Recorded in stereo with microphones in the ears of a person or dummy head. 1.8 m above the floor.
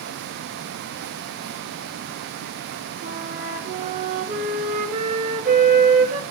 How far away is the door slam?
I don't hear a door slam.